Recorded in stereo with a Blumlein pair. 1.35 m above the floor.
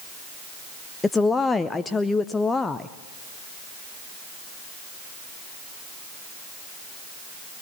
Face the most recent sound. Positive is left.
turn(degrees=10)